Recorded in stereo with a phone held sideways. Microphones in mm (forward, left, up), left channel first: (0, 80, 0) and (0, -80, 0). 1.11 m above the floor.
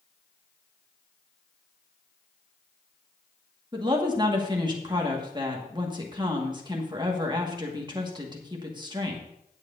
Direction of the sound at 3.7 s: 30° right (ahead or behind).